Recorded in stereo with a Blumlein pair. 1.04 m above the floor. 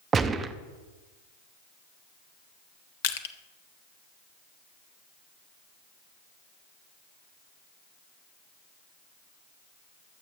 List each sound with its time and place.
0.1 s a gunshot: 20° right, 0.8 m
3.0 s crushing: 55° left, 1.2 m